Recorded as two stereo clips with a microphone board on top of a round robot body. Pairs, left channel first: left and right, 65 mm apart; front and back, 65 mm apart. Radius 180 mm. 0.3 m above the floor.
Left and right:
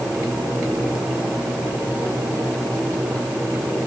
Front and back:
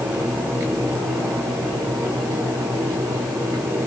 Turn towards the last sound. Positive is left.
No sound to turn to.